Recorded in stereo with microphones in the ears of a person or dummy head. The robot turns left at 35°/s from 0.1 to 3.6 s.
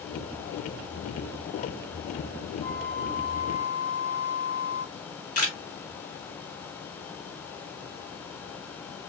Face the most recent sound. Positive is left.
turn(degrees=55)  # may be behind; listen again after turning